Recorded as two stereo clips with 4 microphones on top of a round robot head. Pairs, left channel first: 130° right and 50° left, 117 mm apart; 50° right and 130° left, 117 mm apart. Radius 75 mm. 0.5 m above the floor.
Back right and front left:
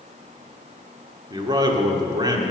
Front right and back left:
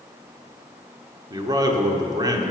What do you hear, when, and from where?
1.3 s a man speaking: 90° left, 1.6 m